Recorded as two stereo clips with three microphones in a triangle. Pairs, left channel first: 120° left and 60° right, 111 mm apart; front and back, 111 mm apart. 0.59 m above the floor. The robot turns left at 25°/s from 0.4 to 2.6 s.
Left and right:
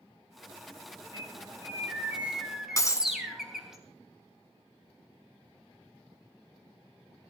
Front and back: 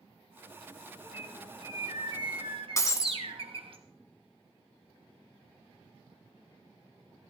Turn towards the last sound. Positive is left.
turn(degrees=60)